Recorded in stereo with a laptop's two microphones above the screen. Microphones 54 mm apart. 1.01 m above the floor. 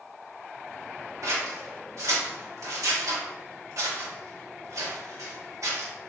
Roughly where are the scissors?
Right.